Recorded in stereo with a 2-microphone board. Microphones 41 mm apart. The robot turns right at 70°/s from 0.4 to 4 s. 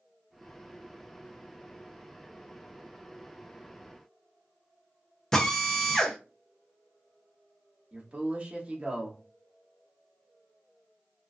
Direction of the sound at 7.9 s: 35° right (ahead or behind).